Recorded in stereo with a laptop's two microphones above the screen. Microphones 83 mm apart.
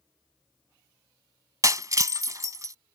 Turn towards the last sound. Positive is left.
turn(degrees=-40)  # may be behind; listen again after turning